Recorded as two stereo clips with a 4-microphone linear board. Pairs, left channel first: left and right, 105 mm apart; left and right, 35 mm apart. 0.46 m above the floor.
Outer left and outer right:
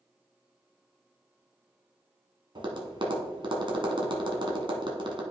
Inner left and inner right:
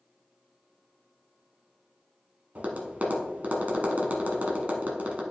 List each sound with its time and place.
2.5 s tapping: 50° right (ahead or behind), 1.5 m